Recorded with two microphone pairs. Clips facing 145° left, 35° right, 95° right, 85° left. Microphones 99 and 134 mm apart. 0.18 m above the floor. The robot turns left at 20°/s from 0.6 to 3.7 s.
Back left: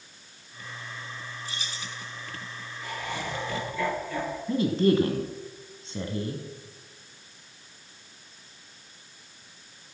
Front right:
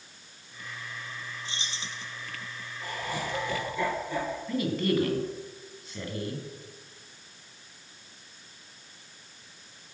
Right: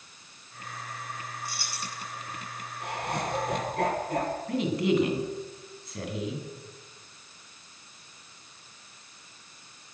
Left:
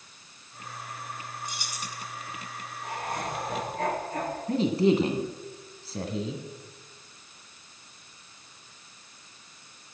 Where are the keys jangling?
20° left, 1.4 m; by 2.0 s 10° left, 1.4 m.